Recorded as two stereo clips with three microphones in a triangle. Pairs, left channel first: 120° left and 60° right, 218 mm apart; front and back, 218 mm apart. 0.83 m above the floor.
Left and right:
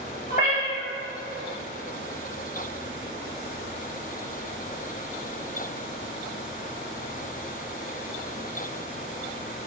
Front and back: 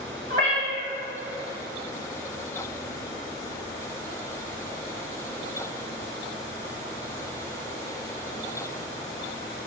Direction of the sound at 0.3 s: 170° left.